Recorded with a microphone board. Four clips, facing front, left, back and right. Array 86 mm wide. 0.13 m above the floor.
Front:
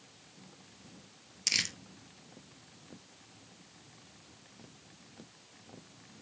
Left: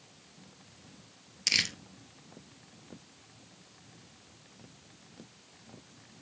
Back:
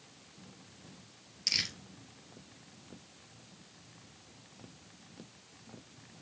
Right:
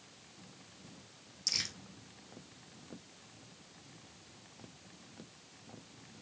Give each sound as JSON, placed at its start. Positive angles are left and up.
{"t": 1.5, "sound": "crumpling", "azimuth_deg": 75, "distance_m": 1.3}